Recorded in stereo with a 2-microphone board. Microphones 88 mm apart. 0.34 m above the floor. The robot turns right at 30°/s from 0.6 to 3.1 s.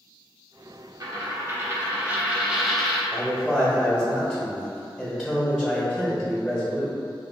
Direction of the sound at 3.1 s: 5° right (ahead or behind).